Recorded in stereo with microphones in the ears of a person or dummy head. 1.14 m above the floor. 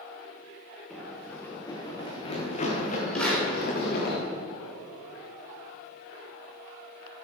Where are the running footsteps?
5° left (ahead or behind), 3.5 m; by 4.2 s 65° left (ahead or behind), 5.5 m.